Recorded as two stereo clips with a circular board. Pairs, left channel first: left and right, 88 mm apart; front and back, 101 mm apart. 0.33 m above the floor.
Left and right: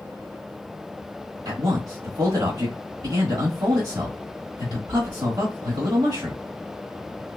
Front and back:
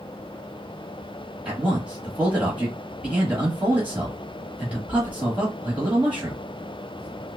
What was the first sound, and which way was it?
A man speaking, 105° right.